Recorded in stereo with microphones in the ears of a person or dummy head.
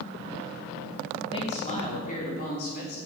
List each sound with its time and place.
1.3 s a man speaking: 25° left (ahead or behind), 2.5 m; by 3.0 s 50° left (ahead or behind), 4 m